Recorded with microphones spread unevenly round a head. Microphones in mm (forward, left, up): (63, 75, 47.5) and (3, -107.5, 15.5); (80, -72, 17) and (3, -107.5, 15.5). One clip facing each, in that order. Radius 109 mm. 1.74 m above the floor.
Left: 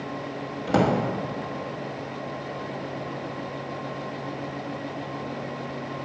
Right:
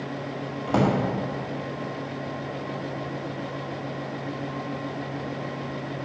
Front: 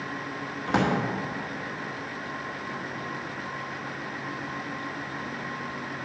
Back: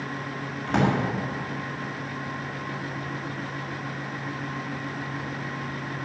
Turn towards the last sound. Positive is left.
turn(degrees=95)